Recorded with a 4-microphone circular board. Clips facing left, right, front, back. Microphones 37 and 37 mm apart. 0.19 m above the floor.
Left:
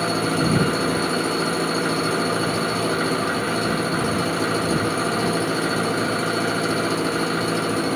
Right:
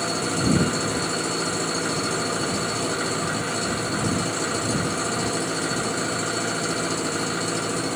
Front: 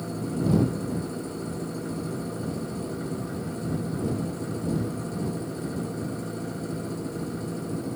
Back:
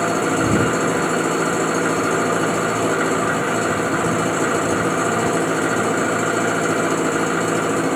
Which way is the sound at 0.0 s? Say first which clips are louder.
Left 3 dB, back 11 dB; 170° left.